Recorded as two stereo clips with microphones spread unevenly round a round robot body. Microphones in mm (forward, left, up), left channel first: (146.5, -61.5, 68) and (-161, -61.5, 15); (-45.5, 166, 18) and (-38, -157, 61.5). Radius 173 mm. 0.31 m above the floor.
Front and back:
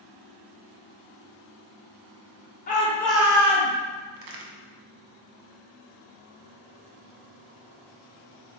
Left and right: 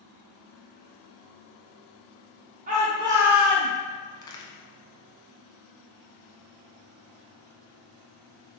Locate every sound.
2.7 s a shout: 45° right, 0.9 m; by 3.7 s 160° left, 1.1 m
4.2 s a crack: 170° left, 0.7 m